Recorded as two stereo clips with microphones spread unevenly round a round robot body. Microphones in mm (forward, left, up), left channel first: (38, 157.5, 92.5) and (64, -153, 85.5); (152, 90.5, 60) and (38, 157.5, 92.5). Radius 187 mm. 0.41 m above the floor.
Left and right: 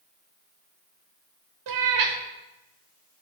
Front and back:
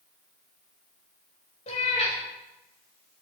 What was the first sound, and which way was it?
A cat meowing, 70° right.